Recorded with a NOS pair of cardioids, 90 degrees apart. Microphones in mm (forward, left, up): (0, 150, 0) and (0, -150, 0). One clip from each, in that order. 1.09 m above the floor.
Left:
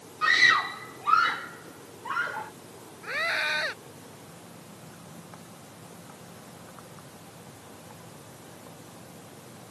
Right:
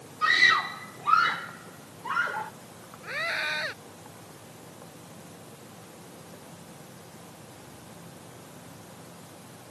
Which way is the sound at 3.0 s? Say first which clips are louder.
Left 2 dB; 15° left.